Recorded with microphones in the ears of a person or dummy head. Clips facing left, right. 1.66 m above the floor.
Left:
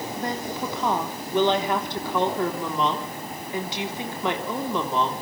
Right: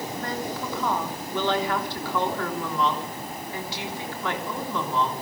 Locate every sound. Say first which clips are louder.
0.2 s a woman speaking: left 3 dB; 20° left (ahead or behind), 3.5 m